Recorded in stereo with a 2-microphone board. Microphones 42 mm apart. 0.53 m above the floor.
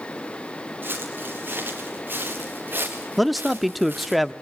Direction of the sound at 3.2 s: Centre (ahead or behind).